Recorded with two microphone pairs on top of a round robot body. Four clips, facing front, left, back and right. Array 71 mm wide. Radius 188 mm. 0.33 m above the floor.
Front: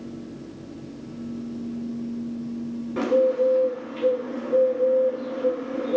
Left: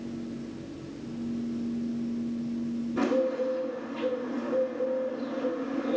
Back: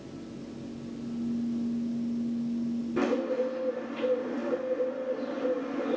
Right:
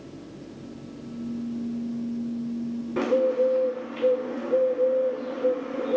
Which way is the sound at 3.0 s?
55° right.